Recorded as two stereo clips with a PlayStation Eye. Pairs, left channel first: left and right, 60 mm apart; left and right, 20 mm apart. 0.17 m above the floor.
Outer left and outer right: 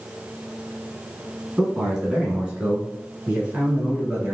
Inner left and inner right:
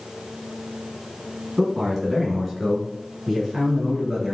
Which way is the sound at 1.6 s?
10° right (ahead or behind).